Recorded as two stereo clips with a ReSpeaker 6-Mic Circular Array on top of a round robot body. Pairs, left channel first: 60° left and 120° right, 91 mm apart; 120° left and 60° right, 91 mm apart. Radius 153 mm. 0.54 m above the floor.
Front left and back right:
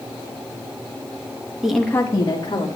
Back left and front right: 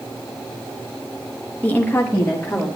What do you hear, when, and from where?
1.6 s a woman speaking: 165° left, 1.1 m; by 2.7 s 50° left, 1.6 m